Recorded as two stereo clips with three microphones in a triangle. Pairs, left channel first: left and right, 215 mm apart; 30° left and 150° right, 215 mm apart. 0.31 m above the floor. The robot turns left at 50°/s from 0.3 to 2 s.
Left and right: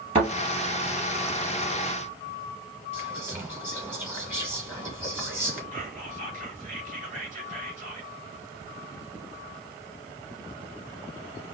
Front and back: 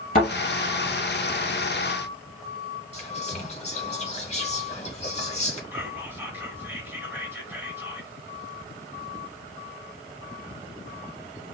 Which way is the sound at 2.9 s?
15° right.